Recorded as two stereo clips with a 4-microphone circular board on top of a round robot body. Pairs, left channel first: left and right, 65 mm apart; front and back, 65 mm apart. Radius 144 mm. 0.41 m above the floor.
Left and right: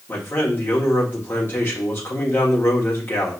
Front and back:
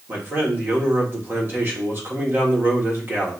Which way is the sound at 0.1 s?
135° left.